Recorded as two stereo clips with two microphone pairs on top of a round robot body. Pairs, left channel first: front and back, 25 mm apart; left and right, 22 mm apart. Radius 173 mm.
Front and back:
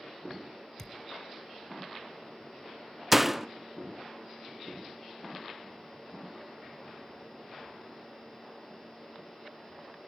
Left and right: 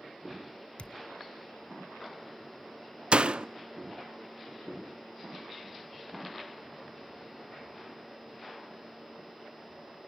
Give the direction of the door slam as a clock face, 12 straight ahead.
3 o'clock.